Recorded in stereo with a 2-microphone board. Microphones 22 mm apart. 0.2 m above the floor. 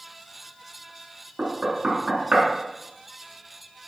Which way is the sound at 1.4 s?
55° right (ahead or behind).